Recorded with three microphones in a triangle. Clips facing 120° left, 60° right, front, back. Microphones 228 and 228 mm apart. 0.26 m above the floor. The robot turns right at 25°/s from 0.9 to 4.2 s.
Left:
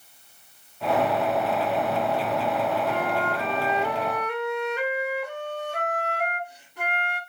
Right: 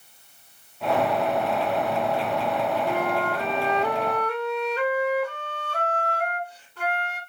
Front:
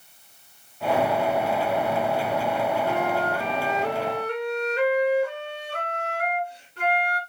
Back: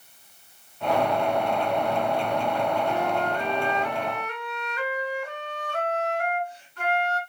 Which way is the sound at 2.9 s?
15° left.